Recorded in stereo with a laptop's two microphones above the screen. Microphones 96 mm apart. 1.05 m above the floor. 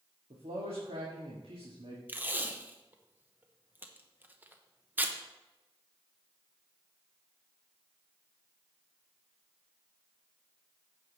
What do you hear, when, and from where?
0.3 s a man speaking: 75° right (ahead or behind), 1.8 m
2.1 s tape being pulled: 20° right (ahead or behind), 0.8 m